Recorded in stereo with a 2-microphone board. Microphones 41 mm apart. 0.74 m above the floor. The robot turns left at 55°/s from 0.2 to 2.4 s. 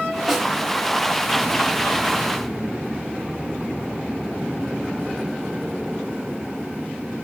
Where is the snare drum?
5° right (ahead or behind), 1.3 m; by 0.5 s centre (ahead or behind), 1.3 m.